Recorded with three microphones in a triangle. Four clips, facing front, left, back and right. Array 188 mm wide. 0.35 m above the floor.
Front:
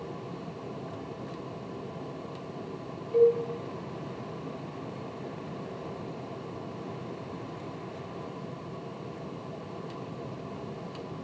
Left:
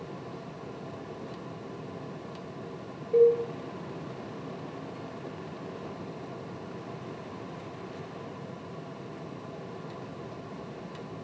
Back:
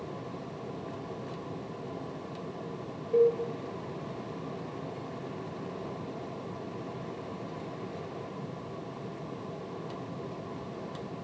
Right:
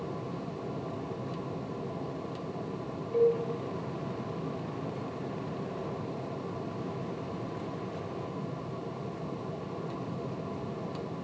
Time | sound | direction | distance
3.1 | a cowbell | 140° left | 7 m